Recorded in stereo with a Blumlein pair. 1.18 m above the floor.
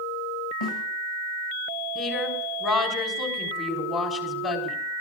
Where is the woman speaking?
25° left, 3.5 m.